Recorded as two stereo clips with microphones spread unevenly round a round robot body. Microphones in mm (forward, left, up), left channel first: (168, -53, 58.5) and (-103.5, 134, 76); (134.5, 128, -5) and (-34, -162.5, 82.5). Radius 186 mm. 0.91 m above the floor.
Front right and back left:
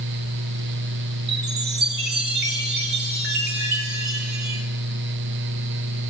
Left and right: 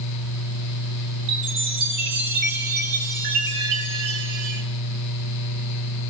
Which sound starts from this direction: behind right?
A chime, at 1.3 s.